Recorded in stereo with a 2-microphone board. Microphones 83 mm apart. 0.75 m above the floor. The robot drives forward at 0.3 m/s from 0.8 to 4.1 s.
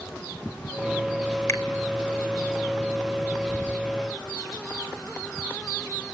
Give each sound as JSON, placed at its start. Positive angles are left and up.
{"t": 1.5, "sound": "a finger snap", "side_deg": 35, "distance_m": 2.5}
{"t": 3.5, "sound": "whispering", "side_deg": 50, "distance_m": 8.0}